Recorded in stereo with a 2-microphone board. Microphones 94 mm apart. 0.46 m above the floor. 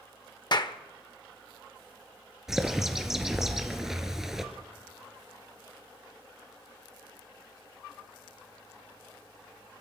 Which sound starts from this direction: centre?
A bird, at 2.5 s.